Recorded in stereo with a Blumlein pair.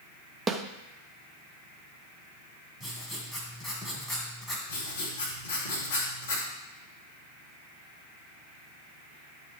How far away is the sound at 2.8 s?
About 2.5 m.